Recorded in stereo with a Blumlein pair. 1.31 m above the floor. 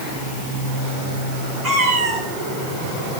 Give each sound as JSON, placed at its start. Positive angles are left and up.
{"t": 1.6, "sound": "a cat meowing", "azimuth_deg": -35, "distance_m": 4.0}